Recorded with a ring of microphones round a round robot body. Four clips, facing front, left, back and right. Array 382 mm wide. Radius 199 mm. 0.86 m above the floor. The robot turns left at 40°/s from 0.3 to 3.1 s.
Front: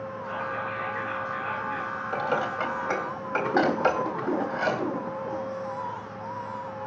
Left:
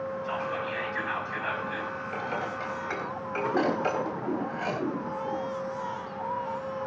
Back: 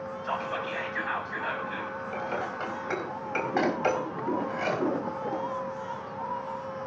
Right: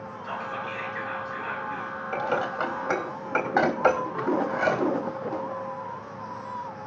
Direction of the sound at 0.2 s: 170° right.